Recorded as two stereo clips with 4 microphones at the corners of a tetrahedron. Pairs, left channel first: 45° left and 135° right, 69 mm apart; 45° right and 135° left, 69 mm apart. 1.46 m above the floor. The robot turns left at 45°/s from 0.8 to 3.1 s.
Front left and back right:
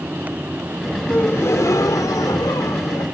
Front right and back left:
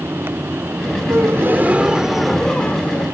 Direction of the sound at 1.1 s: 95° left.